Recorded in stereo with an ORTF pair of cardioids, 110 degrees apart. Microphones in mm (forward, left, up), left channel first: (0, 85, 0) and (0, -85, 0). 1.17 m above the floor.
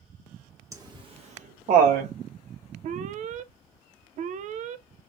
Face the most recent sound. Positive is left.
turn(degrees=-50)